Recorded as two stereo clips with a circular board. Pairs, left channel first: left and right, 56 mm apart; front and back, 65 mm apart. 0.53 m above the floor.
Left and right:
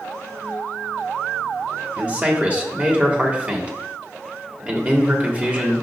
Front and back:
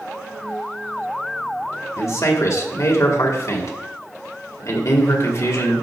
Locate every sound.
2.0 s a man speaking: 30° right, 2 m